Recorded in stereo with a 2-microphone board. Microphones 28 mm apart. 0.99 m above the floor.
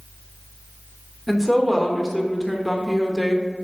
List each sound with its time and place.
1.3 s a woman speaking: centre (ahead or behind), 1.2 m